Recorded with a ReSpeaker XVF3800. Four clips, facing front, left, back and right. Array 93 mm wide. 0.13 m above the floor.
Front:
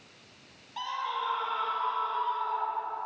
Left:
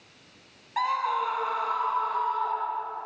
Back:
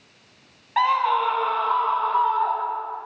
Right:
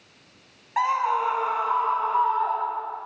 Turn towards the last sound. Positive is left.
turn(degrees=-145)